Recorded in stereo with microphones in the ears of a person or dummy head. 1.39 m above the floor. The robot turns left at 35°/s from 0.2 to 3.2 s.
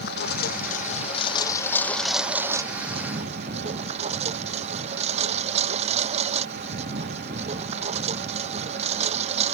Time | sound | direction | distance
0.0 | a lawn mower | 65° left | ?